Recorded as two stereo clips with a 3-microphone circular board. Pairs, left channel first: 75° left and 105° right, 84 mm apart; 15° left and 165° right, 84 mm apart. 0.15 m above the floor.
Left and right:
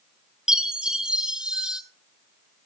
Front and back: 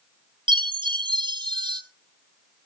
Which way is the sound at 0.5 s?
175° left.